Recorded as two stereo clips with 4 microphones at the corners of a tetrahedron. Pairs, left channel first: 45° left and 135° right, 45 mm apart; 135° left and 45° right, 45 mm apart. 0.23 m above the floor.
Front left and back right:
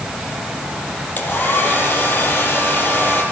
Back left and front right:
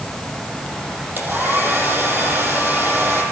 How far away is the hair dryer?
About 6 m.